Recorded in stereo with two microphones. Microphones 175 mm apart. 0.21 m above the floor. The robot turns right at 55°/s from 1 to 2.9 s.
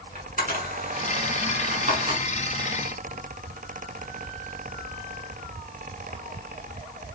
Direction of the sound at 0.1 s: 50° right (ahead or behind).